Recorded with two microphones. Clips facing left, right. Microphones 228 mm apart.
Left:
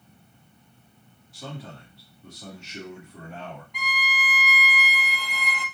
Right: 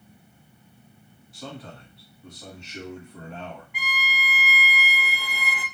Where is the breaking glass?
No breaking glass in this recording.